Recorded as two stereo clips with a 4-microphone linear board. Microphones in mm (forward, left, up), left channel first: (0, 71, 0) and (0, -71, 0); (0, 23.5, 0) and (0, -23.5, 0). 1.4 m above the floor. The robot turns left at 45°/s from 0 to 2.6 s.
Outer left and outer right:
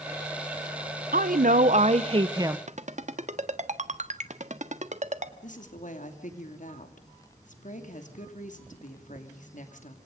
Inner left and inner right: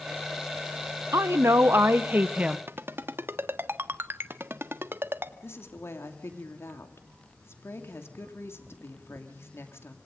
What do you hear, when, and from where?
1.1 s a woman speaking: 95° right, 0.9 m; by 2.6 s 160° right, 0.9 m
2.7 s a ringtone: 60° right (ahead or behind), 1.4 m
5.4 s a woman speaking: 65° left (ahead or behind), 2.5 m